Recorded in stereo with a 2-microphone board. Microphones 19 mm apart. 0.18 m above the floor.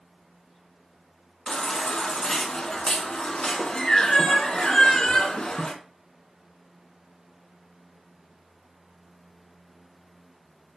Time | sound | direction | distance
1.5 | a baby crying | 50° left (ahead or behind) | 1.0 m